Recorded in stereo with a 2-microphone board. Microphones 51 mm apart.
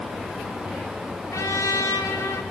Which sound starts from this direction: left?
A trumpet, at 1.3 s.